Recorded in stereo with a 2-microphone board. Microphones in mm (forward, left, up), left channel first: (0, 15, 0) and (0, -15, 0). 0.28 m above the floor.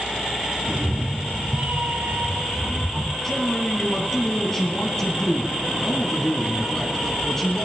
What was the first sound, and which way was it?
A cat meowing, 70° right (ahead or behind).